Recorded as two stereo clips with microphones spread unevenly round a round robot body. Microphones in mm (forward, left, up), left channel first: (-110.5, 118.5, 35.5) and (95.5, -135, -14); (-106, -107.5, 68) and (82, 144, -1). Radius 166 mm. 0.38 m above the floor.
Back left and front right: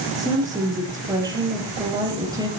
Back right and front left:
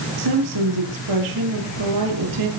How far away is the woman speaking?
About 7 m.